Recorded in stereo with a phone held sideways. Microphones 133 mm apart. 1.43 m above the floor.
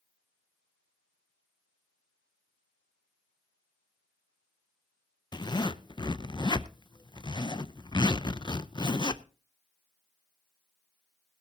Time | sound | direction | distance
5.3 | a zipper | 35° left (ahead or behind) | 0.6 m